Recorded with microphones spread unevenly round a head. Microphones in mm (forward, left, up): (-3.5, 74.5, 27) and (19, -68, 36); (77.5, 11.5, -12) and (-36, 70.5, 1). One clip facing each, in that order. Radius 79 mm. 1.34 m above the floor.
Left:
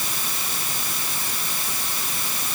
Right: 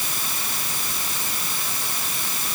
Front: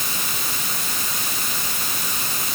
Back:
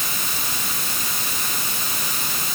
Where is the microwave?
No microwave in this recording.